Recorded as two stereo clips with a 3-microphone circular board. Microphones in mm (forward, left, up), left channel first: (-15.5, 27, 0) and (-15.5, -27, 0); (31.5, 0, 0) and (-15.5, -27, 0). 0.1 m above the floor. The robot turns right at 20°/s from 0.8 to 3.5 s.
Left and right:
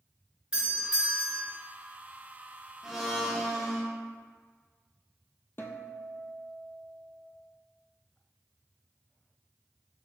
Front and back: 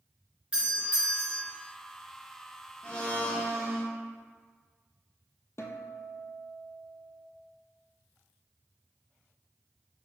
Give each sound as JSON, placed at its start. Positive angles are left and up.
{"t": 0.5, "sound": "a doorbell", "azimuth_deg": -135, "distance_m": 1.7}
{"t": 2.8, "sound": "a blender", "azimuth_deg": -15, "distance_m": 1.1}
{"t": 5.6, "sound": "a guitar", "azimuth_deg": 50, "distance_m": 0.6}